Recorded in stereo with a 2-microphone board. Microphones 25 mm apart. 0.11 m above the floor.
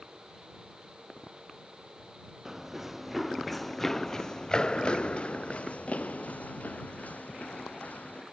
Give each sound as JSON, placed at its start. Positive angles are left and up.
{"t": 2.5, "sound": "running footsteps", "side_deg": -15}